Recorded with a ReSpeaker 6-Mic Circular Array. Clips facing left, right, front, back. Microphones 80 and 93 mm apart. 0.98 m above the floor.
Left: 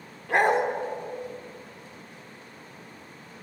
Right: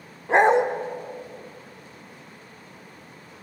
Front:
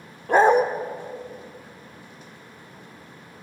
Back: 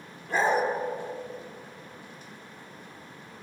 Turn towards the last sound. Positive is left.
turn(degrees=-25)